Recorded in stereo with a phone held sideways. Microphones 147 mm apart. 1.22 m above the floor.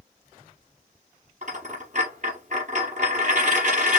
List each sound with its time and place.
1.4 s a dropped coin: 55° right (ahead or behind), 4 m